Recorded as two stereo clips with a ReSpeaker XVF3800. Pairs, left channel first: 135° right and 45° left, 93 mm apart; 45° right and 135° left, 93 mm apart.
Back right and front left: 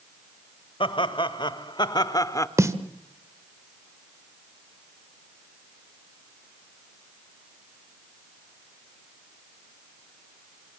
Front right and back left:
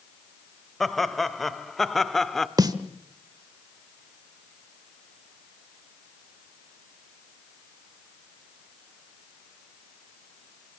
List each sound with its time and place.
0.8 s laughter: 130° right, 2.0 m
2.6 s a snare drum: 95° left, 1.3 m